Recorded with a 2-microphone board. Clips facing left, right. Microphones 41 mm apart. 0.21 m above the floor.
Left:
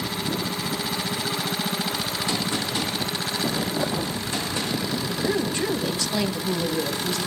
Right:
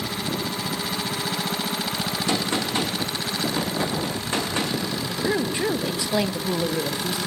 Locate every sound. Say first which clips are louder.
2.3 s a gunshot: right 3 dB; 40° right (ahead or behind), 7.5 m
5.2 s a woman speaking: right 1 dB; 20° right (ahead or behind), 1.3 m